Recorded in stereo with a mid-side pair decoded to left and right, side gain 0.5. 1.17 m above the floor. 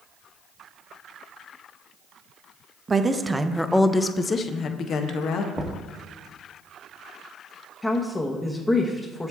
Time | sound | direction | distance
2.9 | a woman speaking | 30° right | 0.9 m
5.5 | knocking | 10° right | 1.1 m
7.8 | a woman speaking | 20° left | 1.0 m